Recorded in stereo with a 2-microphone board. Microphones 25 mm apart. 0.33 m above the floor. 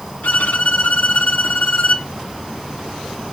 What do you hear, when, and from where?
0.2 s a violin: 80° left, 1.5 m